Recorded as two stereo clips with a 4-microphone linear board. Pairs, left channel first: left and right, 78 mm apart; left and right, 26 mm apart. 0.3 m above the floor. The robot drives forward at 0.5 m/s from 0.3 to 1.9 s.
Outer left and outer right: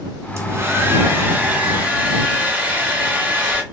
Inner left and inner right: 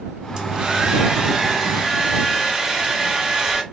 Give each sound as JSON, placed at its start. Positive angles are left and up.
{"t": 0.4, "sound": "a hair dryer", "side_deg": -35, "distance_m": 0.8}